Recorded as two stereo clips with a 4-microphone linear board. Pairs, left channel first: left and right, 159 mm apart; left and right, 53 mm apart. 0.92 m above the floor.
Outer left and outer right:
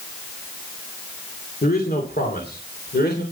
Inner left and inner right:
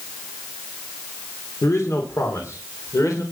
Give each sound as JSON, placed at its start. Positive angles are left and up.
{"t": 1.6, "sound": "a man speaking", "side_deg": 70, "distance_m": 2.5}